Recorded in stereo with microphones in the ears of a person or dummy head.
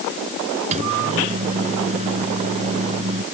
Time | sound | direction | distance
0.7 | a microwave | 35° right (ahead or behind) | ?